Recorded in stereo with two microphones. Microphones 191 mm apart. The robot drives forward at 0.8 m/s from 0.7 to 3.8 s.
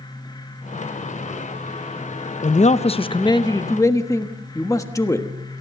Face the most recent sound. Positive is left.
turn(degrees=15)  # may be behind; listen again after turning